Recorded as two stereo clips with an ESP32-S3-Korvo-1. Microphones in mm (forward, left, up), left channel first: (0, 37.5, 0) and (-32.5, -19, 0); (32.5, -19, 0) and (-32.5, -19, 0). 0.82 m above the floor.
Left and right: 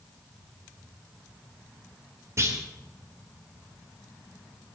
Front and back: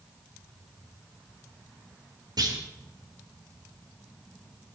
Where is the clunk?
165° right, 2.5 m.